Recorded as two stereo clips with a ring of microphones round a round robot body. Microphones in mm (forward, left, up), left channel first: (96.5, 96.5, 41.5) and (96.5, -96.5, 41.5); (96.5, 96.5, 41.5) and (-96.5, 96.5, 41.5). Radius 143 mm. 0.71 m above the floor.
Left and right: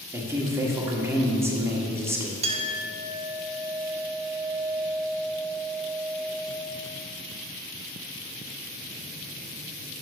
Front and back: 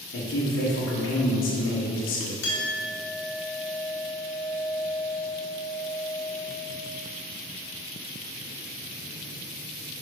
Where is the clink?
30° right, 1.2 m.